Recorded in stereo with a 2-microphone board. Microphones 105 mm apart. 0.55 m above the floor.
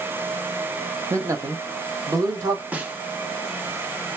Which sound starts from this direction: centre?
A snare drum, at 2.7 s.